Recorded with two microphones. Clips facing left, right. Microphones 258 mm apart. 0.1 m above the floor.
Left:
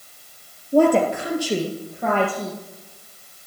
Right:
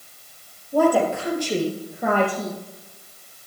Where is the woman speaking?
30° left (ahead or behind), 2.5 m; by 2.6 s 20° right (ahead or behind), 3 m.